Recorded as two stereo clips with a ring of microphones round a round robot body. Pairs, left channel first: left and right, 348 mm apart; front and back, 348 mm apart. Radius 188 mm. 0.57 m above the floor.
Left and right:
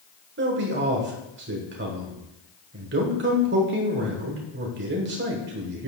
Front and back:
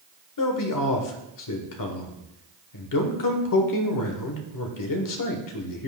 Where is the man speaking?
30° right, 1.5 m.